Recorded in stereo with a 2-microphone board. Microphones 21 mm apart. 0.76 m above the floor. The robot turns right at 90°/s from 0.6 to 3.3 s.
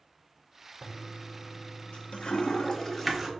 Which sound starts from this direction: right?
A toilet flushing, at 0.8 s.